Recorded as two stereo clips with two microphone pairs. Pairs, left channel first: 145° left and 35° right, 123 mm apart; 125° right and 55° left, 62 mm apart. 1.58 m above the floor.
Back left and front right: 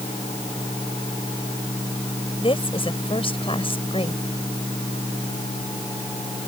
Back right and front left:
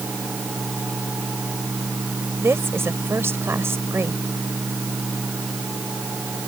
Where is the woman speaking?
100° left.